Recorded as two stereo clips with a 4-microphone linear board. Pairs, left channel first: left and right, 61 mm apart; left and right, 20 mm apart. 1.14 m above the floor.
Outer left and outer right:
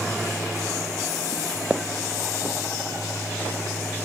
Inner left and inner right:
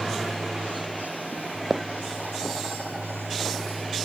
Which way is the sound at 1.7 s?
15° right (ahead or behind).